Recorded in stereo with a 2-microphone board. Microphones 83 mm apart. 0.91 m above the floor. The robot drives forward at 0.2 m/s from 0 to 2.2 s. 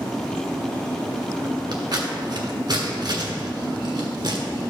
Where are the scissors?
65° right (ahead or behind), 2.0 m; by 4.4 s 60° right (ahead or behind), 2.0 m.